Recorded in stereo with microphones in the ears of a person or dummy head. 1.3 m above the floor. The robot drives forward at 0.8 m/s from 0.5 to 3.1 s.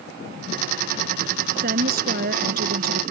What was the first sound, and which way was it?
A woman speaking, 55° right (ahead or behind).